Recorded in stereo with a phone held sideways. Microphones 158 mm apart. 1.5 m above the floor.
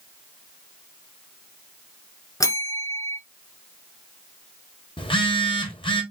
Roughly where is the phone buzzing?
Left.